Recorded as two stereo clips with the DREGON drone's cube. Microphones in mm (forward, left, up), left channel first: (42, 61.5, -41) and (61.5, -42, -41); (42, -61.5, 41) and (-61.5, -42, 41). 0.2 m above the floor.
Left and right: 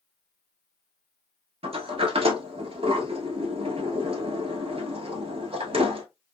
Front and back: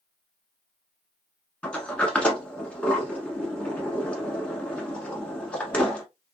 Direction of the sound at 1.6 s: 90° right.